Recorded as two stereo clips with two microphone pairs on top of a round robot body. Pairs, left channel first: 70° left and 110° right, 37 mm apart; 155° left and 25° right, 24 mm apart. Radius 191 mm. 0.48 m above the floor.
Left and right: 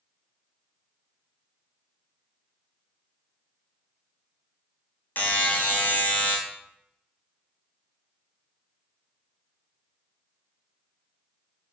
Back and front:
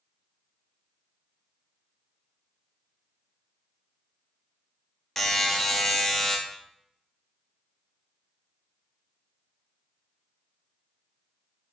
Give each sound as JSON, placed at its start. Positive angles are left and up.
{"t": 5.2, "sound": "a buzzer", "azimuth_deg": 85, "distance_m": 0.8}